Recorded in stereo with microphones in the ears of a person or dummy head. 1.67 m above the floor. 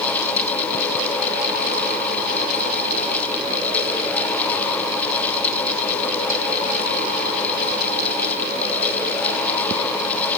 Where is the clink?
I don't hear a clink.